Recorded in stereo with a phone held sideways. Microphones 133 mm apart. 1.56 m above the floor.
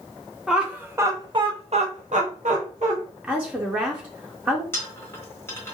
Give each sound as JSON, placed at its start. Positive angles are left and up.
{"t": 0.5, "sound": "laughter", "side_deg": -5, "distance_m": 0.9}
{"t": 3.2, "sound": "a woman speaking", "side_deg": -10, "distance_m": 0.5}
{"t": 4.7, "sound": "a dropped coin", "side_deg": 20, "distance_m": 1.1}